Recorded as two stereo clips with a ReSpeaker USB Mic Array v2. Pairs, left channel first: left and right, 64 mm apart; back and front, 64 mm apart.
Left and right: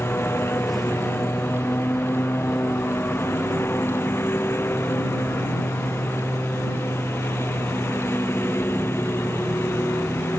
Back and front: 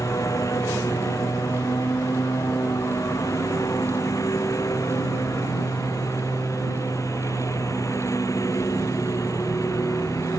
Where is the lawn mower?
145° left.